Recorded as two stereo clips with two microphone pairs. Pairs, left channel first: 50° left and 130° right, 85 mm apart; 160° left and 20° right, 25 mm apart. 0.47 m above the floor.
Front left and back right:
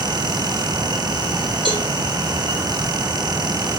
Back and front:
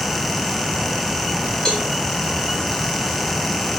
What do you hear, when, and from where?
1.6 s a cowbell: 140° right, 2.5 m